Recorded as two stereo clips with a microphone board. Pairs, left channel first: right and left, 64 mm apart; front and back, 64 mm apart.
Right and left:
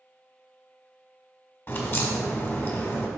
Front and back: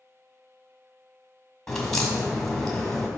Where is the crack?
80° right, 1.6 m.